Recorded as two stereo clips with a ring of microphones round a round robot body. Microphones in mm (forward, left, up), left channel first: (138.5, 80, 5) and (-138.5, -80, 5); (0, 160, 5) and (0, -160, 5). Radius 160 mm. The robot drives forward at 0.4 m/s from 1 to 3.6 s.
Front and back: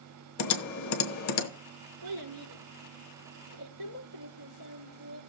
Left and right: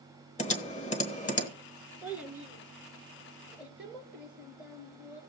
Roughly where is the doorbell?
No doorbell in this recording.